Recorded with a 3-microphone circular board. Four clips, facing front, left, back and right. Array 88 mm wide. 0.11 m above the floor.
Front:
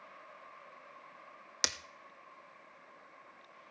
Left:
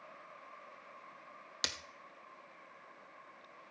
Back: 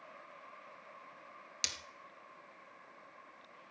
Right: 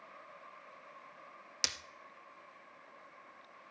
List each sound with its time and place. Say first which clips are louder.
1.6 s breaking glass: left 1 dB, front 9 dB; 15° left, 0.8 m